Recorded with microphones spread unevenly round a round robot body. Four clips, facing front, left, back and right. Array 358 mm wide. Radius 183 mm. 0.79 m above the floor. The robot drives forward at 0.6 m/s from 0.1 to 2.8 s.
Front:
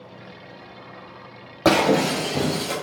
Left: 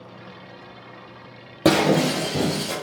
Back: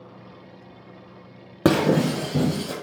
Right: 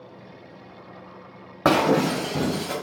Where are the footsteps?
I don't hear footsteps.